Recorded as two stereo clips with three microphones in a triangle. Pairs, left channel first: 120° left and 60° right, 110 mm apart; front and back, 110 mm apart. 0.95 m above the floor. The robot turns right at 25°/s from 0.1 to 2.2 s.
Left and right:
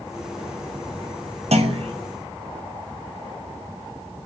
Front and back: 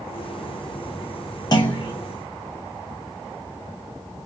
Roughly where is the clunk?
Ahead right.